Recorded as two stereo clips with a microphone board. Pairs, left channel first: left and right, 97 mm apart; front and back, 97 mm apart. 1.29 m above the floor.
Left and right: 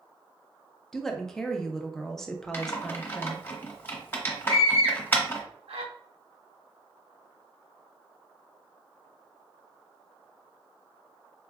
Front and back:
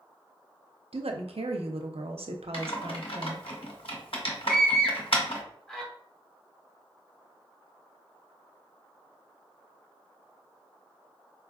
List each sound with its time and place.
0.9 s a woman speaking: 175° left, 0.6 m
2.5 s typing on a keyboard: 25° left, 0.9 m
4.5 s a scream: 85° right, 1.2 m